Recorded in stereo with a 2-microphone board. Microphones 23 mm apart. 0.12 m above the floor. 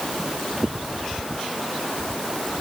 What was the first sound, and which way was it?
Only background noise.